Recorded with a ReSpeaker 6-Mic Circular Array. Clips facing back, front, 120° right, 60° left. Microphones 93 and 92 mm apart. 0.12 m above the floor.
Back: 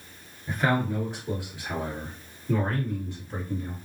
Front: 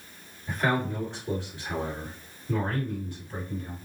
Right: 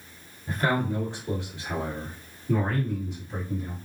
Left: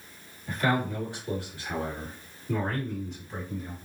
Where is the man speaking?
100° right, 2.0 m; by 3.8 s 140° left, 1.8 m.